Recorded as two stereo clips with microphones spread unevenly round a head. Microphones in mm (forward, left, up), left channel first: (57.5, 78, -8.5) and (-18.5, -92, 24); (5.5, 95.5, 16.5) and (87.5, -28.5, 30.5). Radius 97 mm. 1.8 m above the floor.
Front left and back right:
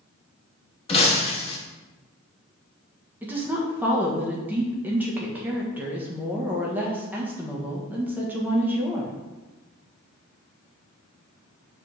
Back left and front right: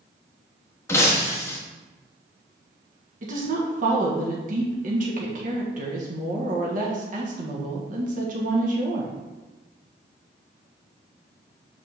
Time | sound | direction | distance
0.9 | breaking glass | 70° left | 1.2 m
3.2 | a woman speaking | 40° right | 1.4 m